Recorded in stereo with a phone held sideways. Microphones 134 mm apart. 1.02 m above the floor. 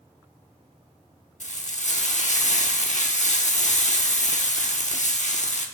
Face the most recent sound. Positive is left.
turn(degrees=65)  # may be behind; listen again after turning